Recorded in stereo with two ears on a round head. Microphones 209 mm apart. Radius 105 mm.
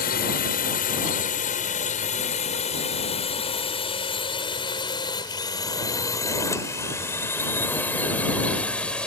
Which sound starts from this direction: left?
A drone, at 0.0 s.